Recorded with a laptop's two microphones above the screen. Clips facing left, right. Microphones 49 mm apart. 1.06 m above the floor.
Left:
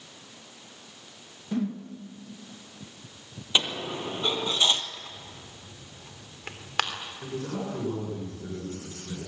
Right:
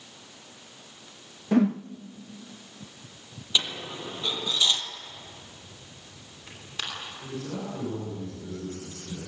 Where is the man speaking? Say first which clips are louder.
Left 3 dB; 35° left (ahead or behind), 9 m.